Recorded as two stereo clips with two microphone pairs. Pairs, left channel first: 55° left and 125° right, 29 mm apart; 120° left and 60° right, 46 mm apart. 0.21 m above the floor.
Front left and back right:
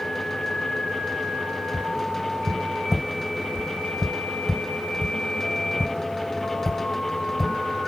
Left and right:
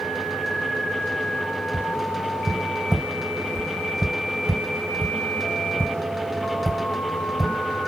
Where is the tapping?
15° right, 2.5 m.